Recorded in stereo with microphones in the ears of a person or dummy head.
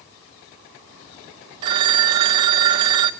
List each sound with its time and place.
1.6 s a phone ringing: 25° right (ahead or behind), 0.5 m